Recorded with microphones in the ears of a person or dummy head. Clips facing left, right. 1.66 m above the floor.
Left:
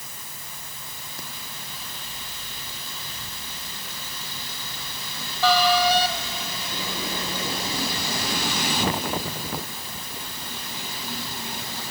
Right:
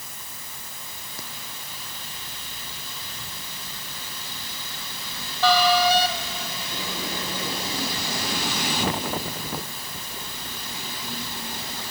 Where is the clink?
I don't hear a clink.